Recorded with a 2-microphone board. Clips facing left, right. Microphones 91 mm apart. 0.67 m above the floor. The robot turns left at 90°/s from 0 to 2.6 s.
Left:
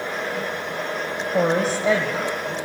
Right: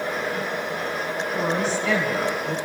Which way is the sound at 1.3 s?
80° left.